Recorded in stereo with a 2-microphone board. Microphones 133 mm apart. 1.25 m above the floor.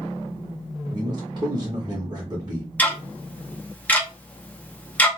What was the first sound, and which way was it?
A man speaking, 35° right (ahead or behind).